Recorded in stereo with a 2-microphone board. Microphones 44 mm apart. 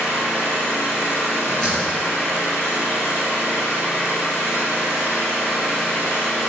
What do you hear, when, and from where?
0.0 s an engine running: 75° left (ahead or behind), 1.4 m
1.5 s a door slam: 20° left (ahead or behind), 1.9 m